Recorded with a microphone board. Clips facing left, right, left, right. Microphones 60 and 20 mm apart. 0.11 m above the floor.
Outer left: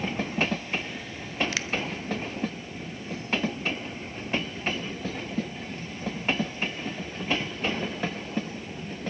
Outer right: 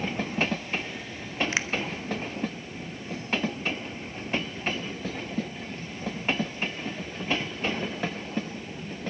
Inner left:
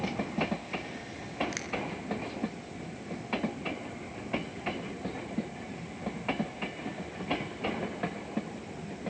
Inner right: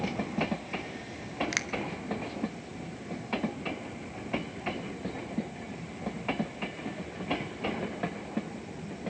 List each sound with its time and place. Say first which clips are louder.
1.5 s a finger snap: outer right 3 dB, inner right 6 dB; 25° right (ahead or behind), 1.3 m